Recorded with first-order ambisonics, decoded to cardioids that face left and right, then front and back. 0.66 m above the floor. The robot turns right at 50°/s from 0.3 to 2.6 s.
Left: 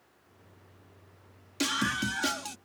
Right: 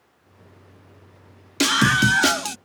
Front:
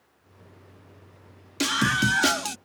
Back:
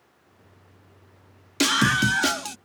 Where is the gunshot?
I don't hear a gunshot.